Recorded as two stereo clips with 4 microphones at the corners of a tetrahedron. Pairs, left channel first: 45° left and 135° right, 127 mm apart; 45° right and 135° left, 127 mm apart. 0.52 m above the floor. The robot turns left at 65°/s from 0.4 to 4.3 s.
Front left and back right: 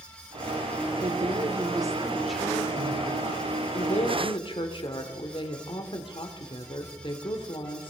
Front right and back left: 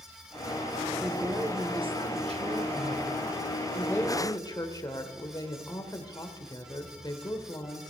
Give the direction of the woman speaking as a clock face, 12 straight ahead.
5 o'clock.